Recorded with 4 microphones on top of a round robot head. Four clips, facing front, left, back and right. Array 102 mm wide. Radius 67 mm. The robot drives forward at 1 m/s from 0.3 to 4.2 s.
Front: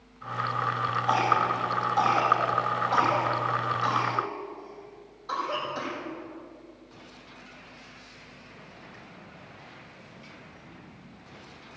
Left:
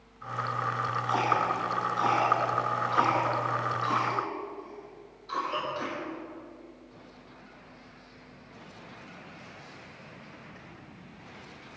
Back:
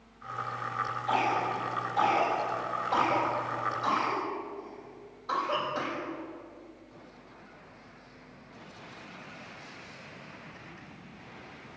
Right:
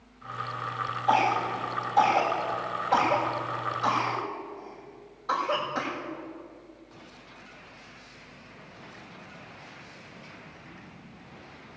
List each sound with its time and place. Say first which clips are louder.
1.1 s a cough: right 4 dB, front 4 dB; 70° right, 7.5 m; by 6.1 s 95° right, 7.5 m